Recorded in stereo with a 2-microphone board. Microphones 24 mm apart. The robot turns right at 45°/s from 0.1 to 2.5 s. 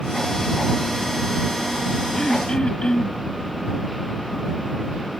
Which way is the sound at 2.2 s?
30° left (ahead or behind).